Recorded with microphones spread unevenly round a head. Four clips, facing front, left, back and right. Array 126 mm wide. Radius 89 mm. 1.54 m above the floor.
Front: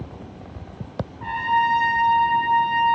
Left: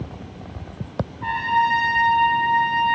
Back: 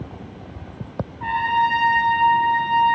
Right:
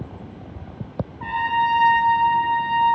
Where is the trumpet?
110° right, 4 m.